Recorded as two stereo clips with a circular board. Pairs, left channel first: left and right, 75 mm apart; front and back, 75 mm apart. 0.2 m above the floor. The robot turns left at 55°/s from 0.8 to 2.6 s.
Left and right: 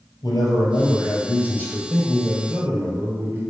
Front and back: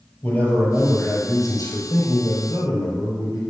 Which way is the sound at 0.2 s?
70° left.